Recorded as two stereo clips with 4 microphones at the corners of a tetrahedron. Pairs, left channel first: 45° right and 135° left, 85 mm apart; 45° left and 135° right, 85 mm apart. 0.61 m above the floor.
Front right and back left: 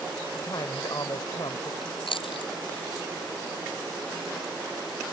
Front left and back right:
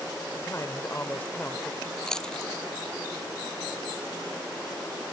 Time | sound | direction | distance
0.3 | a man speaking | 5° right | ?
1.8 | chewing | 40° right | ?